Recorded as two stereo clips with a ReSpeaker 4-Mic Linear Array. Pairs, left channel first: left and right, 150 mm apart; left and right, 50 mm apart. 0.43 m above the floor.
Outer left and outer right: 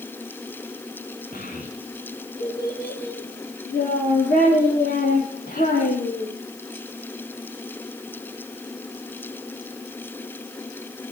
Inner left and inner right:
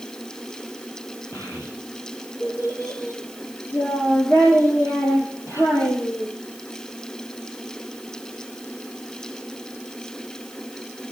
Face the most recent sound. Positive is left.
turn(degrees=75)  # may be behind; listen again after turning